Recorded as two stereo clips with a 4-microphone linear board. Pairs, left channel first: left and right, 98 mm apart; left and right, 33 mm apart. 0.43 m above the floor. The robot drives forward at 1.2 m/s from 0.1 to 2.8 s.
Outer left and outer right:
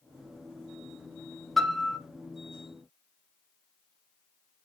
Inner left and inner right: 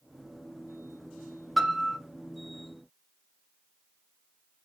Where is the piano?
Centre (ahead or behind), 1.0 m; by 2.0 s 5° left (ahead or behind), 0.5 m.